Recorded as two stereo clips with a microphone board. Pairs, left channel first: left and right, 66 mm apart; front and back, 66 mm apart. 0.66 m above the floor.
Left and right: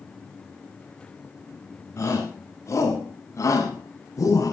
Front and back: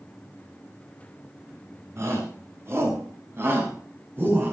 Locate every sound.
2.0 s a shout: 135° left, 7.5 m; by 4.5 s 120° left, 6.5 m